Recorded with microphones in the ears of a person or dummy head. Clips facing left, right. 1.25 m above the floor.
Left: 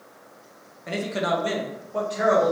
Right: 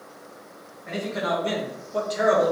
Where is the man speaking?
45° left (ahead or behind), 0.6 m; by 2.5 s 40° right (ahead or behind), 0.7 m.